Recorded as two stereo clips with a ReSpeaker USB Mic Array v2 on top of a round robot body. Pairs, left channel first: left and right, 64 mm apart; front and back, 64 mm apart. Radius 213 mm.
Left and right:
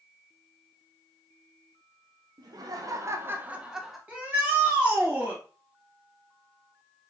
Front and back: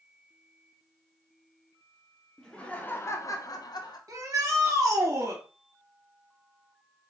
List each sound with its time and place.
2.4 s laughter: 85° right, 1.1 m; by 4.0 s straight ahead, 1.2 m
4.1 s a shout: 155° right, 2.5 m